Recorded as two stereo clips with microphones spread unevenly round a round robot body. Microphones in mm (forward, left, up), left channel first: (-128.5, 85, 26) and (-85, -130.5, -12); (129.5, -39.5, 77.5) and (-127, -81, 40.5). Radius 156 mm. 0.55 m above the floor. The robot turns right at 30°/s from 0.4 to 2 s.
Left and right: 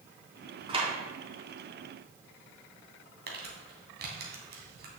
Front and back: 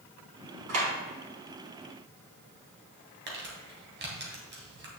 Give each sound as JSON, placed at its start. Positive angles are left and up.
{"t": 0.7, "sound": "a clap", "azimuth_deg": -145, "distance_m": 3.5}
{"t": 3.3, "sound": "crumpling", "azimuth_deg": -120, "distance_m": 2.5}